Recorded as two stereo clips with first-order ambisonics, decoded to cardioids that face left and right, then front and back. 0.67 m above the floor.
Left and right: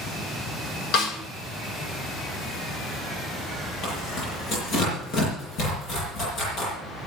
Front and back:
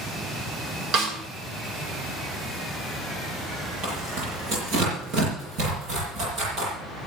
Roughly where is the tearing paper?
Behind left.